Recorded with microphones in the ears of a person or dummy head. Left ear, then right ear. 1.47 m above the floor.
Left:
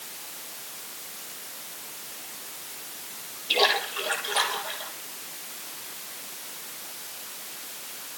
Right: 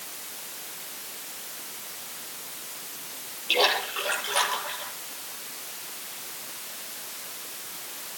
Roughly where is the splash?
Right.